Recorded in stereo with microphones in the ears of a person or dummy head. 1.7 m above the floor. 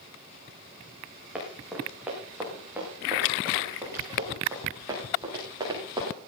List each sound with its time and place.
1.4 s running footsteps: centre (ahead or behind), 7 m; by 6.2 s 20° right (ahead or behind), 10 m